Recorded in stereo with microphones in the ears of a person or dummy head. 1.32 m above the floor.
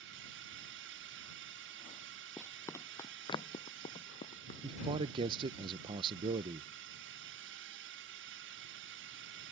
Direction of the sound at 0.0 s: 60° right (ahead or behind).